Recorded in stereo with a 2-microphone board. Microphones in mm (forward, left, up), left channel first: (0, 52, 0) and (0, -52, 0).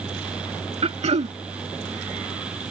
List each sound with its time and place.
0.8 s throat clearing: 85° right